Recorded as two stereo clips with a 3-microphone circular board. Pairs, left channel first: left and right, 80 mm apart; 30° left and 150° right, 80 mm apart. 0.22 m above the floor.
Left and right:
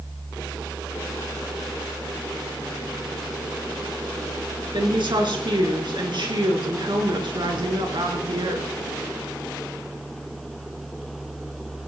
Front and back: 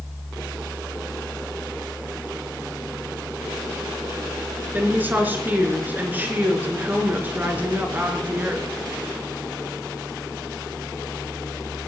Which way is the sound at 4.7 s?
85° right.